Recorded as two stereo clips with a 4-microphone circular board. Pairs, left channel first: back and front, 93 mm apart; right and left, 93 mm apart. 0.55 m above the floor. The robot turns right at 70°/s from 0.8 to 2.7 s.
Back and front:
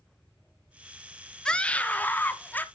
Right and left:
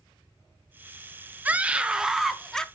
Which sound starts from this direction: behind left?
A scream, at 1.4 s.